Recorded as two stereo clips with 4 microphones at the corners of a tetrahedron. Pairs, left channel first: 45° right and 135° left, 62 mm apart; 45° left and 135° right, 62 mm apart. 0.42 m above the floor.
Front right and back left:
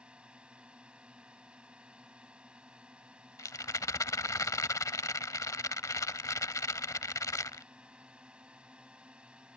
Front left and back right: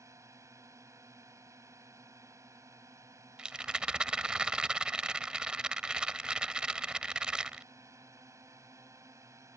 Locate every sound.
0.0 s a drone: 155° right
3.4 s a rattle: 60° right